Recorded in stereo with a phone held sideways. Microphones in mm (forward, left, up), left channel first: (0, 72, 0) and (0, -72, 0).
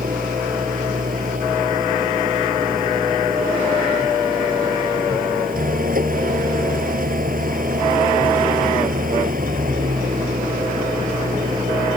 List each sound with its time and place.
0.0 s an engine running: 80° right